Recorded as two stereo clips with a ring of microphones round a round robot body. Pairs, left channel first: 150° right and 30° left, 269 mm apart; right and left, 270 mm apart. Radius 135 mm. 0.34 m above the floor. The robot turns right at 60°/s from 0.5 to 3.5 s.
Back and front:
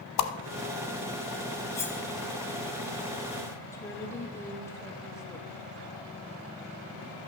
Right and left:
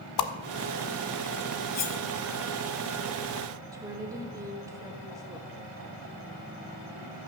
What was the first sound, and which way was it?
A whoosh, 115° right.